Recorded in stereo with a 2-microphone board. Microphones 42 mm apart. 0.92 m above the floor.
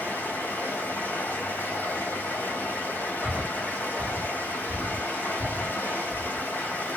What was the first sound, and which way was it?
Running water, 50° left (ahead or behind).